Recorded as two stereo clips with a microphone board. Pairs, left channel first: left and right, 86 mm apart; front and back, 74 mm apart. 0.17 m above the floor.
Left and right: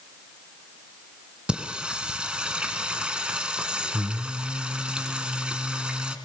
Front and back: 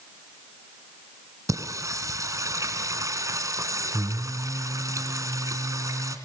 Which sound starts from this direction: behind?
Singing, at 1.5 s.